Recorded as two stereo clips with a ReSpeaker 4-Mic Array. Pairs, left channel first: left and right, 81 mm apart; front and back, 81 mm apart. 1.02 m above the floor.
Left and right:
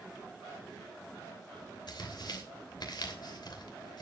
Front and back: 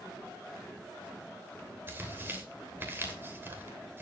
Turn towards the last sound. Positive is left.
turn(degrees=120)